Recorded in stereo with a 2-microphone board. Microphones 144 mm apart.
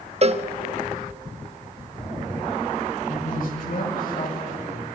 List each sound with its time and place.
0.2 s a cowbell: 45° right (ahead or behind), 1.0 m
3.1 s a man speaking: 65° left (ahead or behind), 9 m